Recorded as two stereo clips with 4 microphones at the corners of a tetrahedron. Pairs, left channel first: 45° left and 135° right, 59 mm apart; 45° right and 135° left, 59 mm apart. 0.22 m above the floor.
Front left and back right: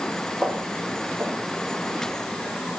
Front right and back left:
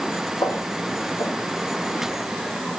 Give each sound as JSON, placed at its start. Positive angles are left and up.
{"t": 0.4, "sound": "footsteps", "azimuth_deg": -45, "distance_m": 3.0}